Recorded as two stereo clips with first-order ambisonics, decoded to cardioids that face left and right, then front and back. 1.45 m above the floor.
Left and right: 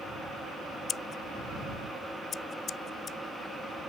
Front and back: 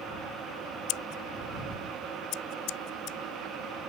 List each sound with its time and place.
0.9 s scissors: 25° left